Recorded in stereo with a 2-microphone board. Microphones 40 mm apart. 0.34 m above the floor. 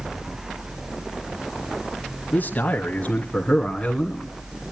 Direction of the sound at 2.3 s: 55° left (ahead or behind).